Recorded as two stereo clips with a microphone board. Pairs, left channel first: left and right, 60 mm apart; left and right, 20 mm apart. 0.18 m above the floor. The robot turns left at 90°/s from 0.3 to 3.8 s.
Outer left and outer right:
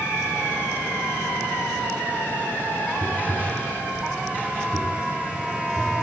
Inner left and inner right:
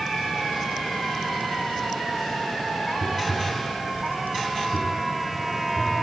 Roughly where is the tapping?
Right.